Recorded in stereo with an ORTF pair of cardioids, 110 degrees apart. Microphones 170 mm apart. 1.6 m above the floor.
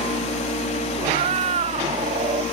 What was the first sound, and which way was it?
A fan, 40° left.